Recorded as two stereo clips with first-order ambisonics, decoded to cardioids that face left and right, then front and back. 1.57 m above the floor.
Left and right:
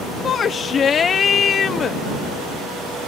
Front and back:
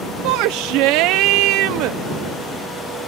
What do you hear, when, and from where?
0.2 s a shout: 155° left